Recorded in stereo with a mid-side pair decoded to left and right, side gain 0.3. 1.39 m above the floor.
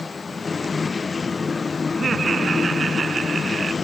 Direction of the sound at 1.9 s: 45° right.